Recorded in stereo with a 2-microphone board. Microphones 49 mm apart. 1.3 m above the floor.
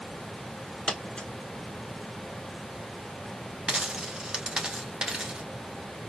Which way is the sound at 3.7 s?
15° right (ahead or behind).